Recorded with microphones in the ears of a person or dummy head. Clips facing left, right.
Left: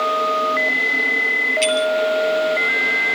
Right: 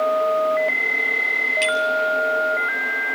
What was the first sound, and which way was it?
A bicycle bell, 10° right (ahead or behind).